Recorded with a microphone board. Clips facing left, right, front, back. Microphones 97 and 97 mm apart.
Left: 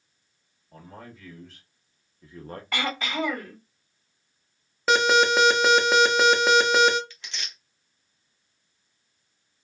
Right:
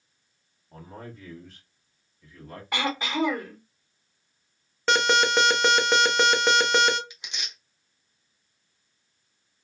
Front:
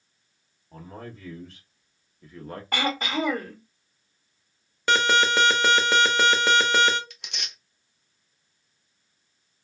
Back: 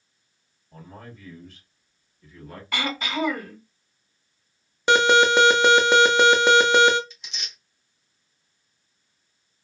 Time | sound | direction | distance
0.7 | a man speaking | 30° right | 1.4 m
2.7 | throat clearing | 25° right | 1.5 m
4.9 | an alarm | 170° left | 0.5 m
7.1 | tearing paper | 15° right | 0.6 m